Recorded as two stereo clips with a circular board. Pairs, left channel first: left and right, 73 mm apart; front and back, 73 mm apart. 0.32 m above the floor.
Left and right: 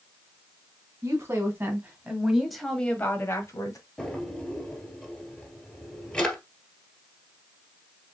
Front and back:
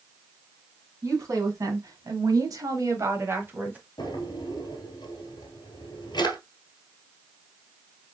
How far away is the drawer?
About 1.7 m.